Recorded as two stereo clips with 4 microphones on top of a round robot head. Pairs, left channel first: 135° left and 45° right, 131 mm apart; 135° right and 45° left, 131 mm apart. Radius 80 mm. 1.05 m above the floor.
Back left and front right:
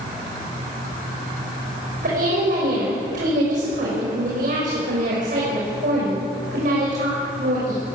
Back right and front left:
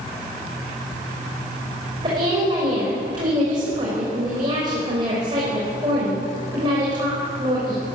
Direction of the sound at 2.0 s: 15° right.